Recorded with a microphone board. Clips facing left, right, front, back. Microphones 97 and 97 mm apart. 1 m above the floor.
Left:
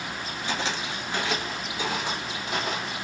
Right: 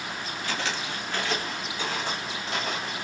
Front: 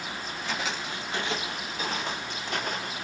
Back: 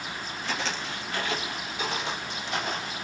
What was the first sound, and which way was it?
Footsteps, 85° left.